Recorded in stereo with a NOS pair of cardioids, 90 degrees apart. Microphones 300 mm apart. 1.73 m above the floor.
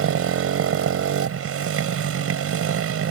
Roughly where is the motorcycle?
Ahead right.